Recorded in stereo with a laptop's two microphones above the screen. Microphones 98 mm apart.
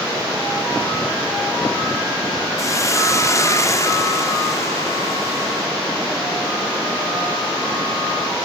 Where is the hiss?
30° left (ahead or behind), 2.5 m.